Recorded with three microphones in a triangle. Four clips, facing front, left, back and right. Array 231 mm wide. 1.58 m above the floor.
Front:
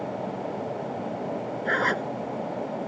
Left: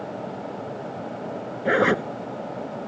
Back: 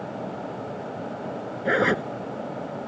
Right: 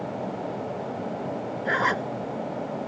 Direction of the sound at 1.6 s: 120° left.